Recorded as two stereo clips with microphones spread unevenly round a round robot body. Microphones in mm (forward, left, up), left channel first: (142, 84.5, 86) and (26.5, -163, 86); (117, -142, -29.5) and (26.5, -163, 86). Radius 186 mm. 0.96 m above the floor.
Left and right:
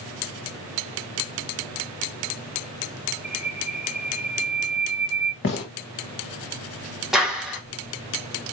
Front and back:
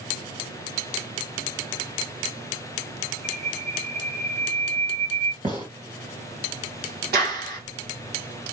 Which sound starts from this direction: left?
A gunshot, at 5.4 s.